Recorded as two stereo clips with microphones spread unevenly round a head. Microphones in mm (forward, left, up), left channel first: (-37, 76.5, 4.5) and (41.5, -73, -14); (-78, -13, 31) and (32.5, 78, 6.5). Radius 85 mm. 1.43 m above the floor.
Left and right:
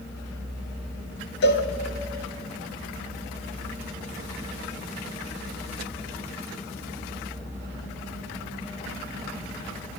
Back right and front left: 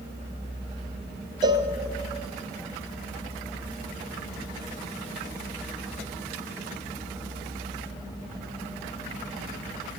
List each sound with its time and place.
1.4 s a cowbell: 105° left, 0.7 m